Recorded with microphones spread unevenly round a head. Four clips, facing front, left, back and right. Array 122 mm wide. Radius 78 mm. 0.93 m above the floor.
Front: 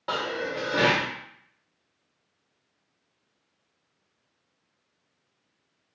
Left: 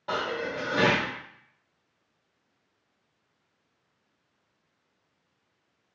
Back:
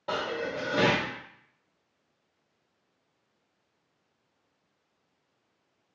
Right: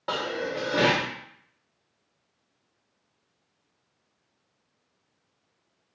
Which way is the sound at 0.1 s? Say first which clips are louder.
Right 1 dB, front 2 dB; 120° right.